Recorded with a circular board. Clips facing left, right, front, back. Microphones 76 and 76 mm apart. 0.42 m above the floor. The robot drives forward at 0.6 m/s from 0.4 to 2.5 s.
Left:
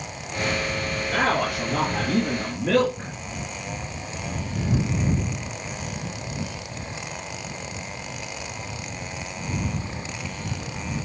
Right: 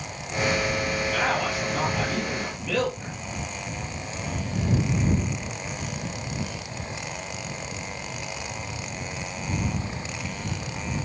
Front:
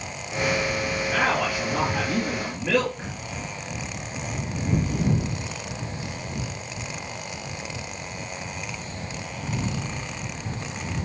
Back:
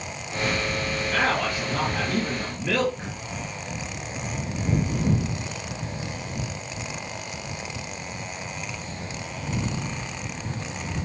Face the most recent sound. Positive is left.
turn(degrees=85)